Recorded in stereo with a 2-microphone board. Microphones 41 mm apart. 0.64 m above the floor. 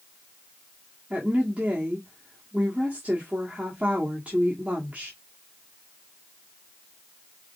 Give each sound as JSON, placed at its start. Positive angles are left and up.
{"t": 1.1, "sound": "a woman speaking", "side_deg": -35, "distance_m": 1.5}